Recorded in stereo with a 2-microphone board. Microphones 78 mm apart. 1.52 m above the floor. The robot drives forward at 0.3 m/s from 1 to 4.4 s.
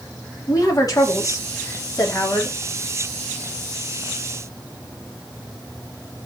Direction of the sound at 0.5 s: 45° left (ahead or behind).